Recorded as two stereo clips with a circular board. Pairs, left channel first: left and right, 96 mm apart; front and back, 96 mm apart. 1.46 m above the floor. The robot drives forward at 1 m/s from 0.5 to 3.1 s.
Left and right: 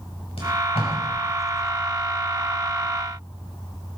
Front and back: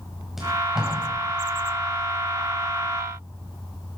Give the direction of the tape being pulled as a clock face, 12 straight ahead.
9 o'clock.